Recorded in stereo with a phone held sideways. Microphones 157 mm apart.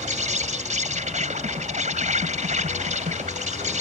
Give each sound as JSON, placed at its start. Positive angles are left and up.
{"t": 0.0, "sound": "an insect", "side_deg": -50}